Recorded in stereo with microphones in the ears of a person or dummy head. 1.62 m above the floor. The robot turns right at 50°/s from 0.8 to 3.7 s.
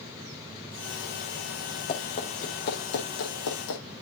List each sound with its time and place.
1.9 s running footsteps: 35° left (ahead or behind), 4.5 m; by 3.8 s 70° left (ahead or behind), 4.5 m